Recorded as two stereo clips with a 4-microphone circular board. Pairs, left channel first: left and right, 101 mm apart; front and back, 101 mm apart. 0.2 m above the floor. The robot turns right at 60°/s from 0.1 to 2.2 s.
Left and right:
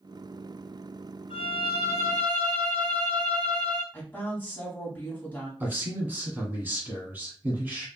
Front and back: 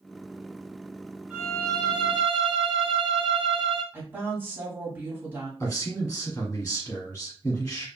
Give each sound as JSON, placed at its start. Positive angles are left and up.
{"t": 1.3, "sound": "a violin", "azimuth_deg": 105, "distance_m": 1.3}
{"t": 3.9, "sound": "a woman speaking", "azimuth_deg": 140, "distance_m": 1.5}
{"t": 5.6, "sound": "a man speaking", "azimuth_deg": -40, "distance_m": 1.1}